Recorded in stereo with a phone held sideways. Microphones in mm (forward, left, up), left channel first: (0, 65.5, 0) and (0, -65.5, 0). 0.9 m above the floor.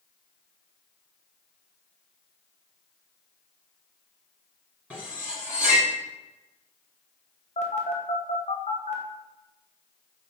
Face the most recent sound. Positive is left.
turn(degrees=60)  # may be behind; listen again after turning